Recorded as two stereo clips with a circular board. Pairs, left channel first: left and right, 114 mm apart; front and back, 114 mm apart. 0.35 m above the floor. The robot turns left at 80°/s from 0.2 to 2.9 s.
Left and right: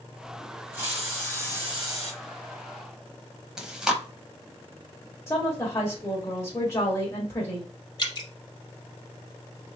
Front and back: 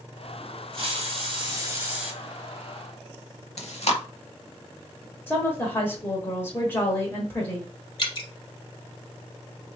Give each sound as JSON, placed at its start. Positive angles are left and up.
{"t": 0.7, "sound": "a hiss", "azimuth_deg": -155, "distance_m": 2.0}
{"t": 3.6, "sound": "chewing", "azimuth_deg": -5, "distance_m": 0.8}
{"t": 5.3, "sound": "a woman speaking", "azimuth_deg": 50, "distance_m": 1.3}
{"t": 8.0, "sound": "dripping", "azimuth_deg": 40, "distance_m": 1.1}